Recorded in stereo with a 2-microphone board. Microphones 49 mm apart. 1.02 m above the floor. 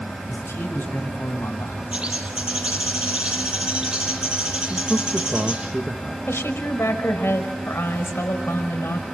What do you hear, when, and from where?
0.3 s a man speaking: 55° left (ahead or behind), 7 m; by 1.8 s 65° left (ahead or behind), 5 m
1.9 s a bird: 20° right (ahead or behind), 8.5 m
4.7 s a man speaking: 20° right (ahead or behind), 1.4 m
6.3 s a woman speaking: 65° left (ahead or behind), 5 m